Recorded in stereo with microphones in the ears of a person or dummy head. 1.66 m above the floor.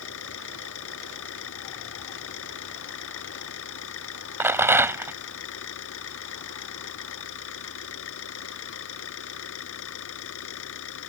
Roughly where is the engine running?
Left.